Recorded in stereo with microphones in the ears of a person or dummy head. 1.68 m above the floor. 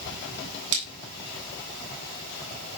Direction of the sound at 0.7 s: 85° right.